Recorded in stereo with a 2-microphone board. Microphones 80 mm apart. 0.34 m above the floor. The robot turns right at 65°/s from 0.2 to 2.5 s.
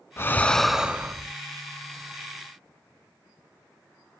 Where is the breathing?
150° left, 0.6 m; by 1.3 s 140° right, 0.6 m.